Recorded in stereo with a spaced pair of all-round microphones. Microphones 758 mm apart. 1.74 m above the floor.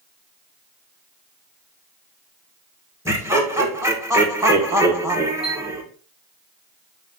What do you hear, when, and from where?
3.0 s laughter: 5° right (ahead or behind), 1.8 m
5.4 s a chime: 20° left (ahead or behind), 4.5 m